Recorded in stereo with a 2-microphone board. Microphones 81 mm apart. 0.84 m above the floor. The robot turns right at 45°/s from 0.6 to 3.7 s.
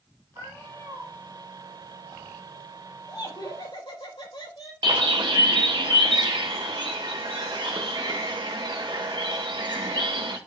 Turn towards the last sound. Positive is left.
turn(degrees=-75)  # may be behind; listen again after turning